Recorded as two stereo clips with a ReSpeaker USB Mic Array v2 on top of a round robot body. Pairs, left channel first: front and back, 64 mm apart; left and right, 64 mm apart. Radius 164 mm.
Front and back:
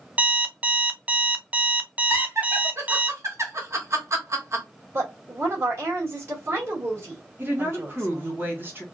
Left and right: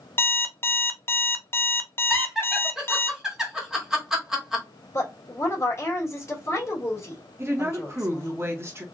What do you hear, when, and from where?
0.2 s an alarm clock: 120° left, 0.7 m
2.1 s laughter: 170° right, 1.8 m
4.9 s a woman speaking: 130° left, 2 m
7.4 s a woman speaking: 130° right, 1.7 m